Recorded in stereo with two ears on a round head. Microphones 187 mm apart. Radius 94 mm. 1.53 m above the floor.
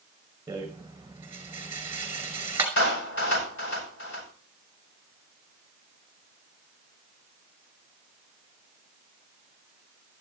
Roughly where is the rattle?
Centre.